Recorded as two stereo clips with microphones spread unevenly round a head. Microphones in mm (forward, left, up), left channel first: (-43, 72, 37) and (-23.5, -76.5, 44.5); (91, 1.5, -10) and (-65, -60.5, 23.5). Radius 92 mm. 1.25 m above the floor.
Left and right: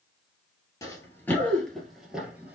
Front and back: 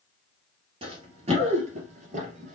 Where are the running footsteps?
165° left, 1.8 m; by 2.5 s 155° right, 1.9 m.